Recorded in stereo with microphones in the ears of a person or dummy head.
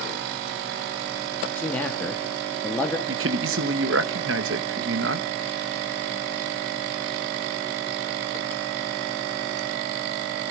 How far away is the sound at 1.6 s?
About 1.9 m.